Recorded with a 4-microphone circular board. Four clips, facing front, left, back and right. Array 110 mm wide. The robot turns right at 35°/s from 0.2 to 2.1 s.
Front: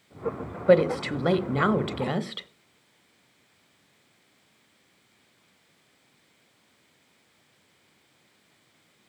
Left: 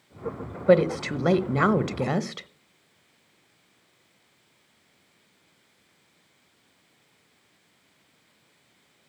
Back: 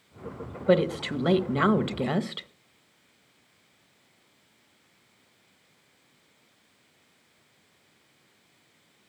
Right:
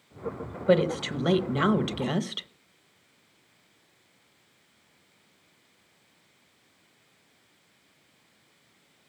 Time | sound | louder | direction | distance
0.7 | a woman speaking | left 4 dB, front 3 dB | 50° left | 0.9 m